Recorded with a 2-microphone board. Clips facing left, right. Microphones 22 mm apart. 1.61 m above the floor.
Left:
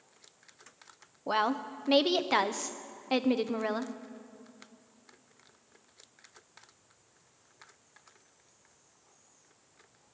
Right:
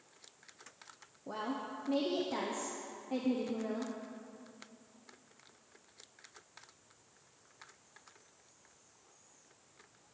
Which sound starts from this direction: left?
A woman speaking, at 1.3 s.